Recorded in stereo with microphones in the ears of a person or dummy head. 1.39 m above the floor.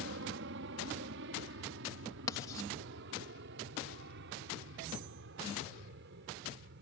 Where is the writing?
20° left (ahead or behind).